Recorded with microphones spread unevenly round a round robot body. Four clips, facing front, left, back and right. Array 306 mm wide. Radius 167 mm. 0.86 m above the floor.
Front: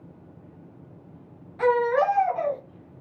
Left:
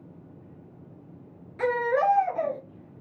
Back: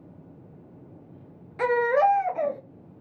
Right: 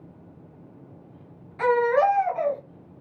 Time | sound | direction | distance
1.6 | a baby crying | 150° left | 0.8 m